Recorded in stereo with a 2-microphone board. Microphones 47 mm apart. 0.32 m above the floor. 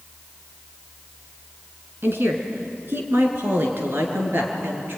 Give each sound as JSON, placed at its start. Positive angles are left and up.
{"t": 2.0, "sound": "a woman speaking", "side_deg": -55, "distance_m": 3.5}